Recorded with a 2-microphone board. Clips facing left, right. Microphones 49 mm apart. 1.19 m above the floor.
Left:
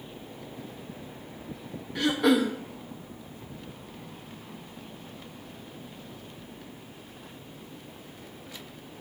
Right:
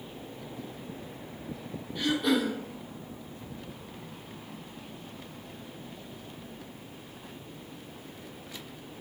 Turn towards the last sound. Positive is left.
turn(degrees=65)  # may be behind; listen again after turning